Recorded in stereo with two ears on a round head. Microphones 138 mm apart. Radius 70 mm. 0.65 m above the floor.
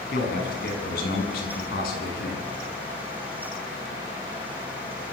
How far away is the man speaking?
About 6.5 m.